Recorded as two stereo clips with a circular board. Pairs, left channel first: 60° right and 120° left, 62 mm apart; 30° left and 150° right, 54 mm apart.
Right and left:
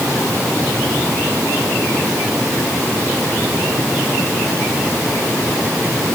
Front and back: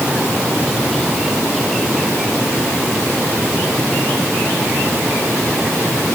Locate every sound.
Only background noise.